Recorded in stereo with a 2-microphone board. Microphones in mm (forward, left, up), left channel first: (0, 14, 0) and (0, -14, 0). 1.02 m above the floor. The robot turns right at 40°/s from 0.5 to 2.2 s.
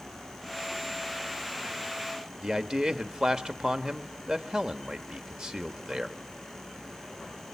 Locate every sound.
2.4 s a man speaking: 30° right (ahead or behind), 1.7 m